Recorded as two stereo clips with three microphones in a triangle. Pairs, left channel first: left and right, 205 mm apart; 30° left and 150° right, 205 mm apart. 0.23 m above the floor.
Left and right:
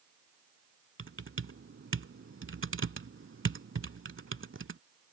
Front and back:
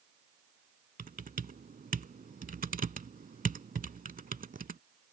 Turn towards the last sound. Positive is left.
turn(degrees=-100)